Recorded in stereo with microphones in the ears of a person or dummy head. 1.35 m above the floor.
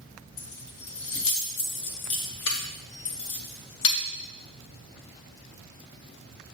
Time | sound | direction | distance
0.4 | keys jangling | 70° left (ahead or behind) | 1.2 m